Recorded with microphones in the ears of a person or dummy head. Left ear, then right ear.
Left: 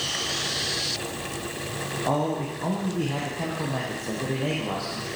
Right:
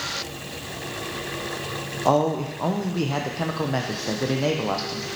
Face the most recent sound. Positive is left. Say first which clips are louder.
# right 6 dB
turn(degrees=-75)  # may be behind; listen again after turning